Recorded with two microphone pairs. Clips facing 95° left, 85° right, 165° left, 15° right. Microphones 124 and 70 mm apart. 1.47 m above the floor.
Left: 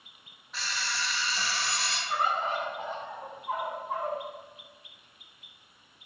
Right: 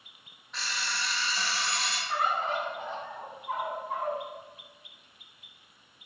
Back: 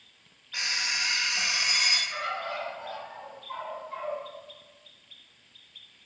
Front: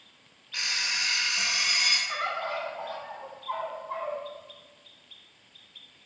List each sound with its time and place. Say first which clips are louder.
0.5 s an alarm clock: even, even; 175° left, 0.8 m
2.1 s a bird: even, front 2 dB; 25° left, 1.0 m